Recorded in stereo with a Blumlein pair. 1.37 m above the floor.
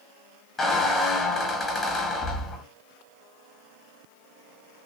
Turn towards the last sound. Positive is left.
turn(degrees=15)